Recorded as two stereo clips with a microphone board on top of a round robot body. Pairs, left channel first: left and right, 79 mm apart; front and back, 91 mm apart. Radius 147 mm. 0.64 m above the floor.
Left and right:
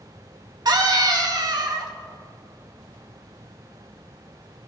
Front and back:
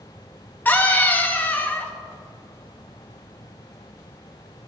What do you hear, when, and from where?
0.7 s a scream: 70° right, 1.9 m